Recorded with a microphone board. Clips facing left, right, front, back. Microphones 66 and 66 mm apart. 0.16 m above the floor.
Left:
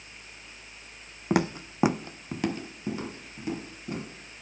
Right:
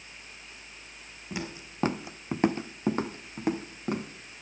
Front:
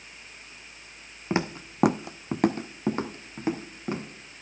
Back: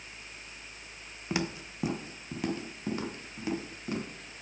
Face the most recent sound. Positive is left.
turn(degrees=-60)